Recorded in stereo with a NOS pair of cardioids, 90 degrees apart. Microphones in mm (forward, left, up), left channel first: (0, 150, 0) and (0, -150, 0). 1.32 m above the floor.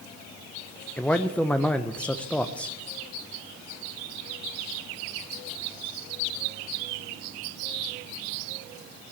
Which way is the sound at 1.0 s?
5° left.